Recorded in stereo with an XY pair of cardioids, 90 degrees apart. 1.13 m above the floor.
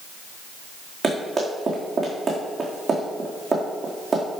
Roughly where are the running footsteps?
Ahead right.